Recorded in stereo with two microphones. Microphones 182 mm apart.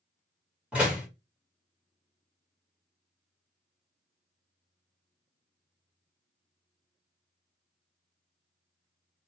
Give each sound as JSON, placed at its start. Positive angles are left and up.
{"t": 0.7, "sound": "a door slam", "side_deg": -5, "distance_m": 1.8}